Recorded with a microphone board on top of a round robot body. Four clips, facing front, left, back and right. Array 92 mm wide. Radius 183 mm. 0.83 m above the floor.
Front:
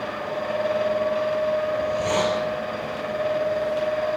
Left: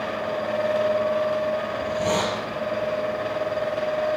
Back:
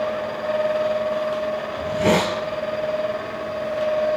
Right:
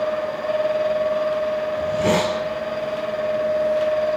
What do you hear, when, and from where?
1.8 s a hiss: 155° right, 3 m